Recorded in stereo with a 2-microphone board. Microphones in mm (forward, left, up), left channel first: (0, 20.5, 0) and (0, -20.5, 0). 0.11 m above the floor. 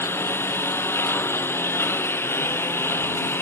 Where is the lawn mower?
75° left (ahead or behind).